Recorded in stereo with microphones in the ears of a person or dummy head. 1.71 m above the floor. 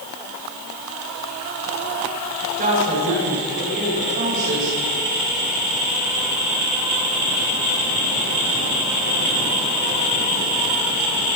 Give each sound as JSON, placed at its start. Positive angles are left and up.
{"t": 2.6, "sound": "a woman speaking", "side_deg": -35, "distance_m": 7.5}